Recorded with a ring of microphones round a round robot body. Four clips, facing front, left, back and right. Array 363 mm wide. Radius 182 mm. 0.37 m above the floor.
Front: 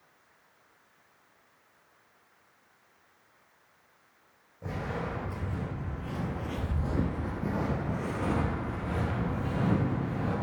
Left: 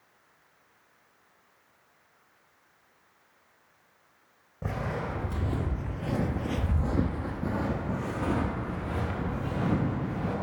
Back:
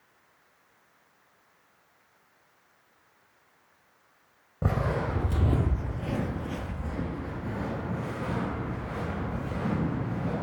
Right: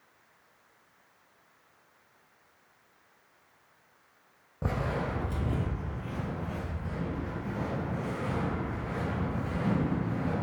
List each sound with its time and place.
4.6 s footsteps: 165° right, 1.4 m; by 10.3 s 40° left, 3.5 m